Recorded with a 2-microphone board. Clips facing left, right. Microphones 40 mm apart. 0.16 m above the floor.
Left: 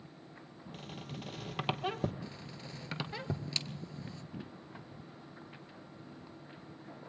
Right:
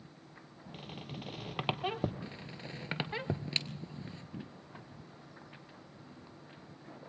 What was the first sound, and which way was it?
A squeak, 10° right (ahead or behind).